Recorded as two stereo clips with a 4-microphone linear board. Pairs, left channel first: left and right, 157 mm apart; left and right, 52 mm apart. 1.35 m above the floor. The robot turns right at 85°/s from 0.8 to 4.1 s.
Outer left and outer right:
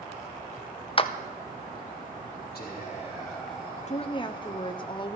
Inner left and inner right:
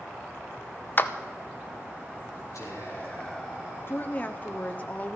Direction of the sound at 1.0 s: 35° left (ahead or behind).